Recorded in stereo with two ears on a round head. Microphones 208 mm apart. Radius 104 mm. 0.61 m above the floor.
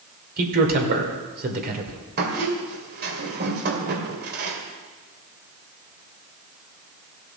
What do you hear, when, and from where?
0.4 s a man speaking: 40° right (ahead or behind), 2 m
2.2 s a squeak: 45° right (ahead or behind), 2 m